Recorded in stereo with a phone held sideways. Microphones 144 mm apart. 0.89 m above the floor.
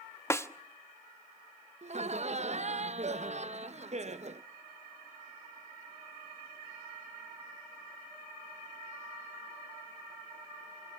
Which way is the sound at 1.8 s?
50° right (ahead or behind).